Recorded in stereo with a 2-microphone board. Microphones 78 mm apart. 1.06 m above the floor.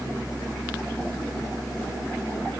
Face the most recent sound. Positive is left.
No sound to turn to.